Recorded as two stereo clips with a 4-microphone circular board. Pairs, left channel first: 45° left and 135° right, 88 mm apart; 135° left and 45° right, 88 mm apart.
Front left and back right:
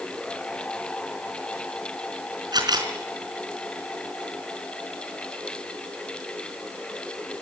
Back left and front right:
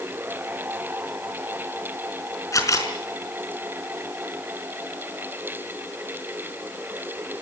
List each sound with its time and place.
2.5 s a camera shutter: 170° right, 4 m